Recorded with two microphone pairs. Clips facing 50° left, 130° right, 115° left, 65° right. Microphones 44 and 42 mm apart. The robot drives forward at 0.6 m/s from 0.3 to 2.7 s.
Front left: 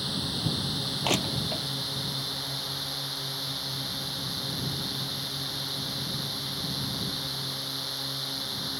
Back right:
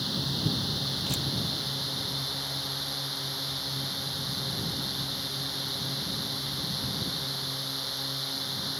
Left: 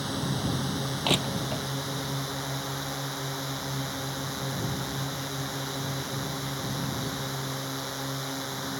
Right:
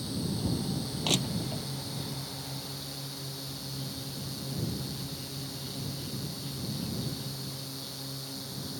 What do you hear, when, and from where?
0.0 s a drone: 140° left; by 8.8 s 145° left
1.0 s crushing: 60° left; by 1.6 s 75° left